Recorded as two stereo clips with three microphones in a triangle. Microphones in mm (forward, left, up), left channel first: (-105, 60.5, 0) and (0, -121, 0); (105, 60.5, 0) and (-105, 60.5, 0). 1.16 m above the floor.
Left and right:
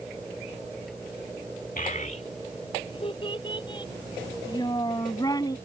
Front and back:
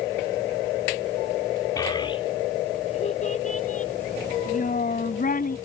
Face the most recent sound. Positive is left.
turn(degrees=45)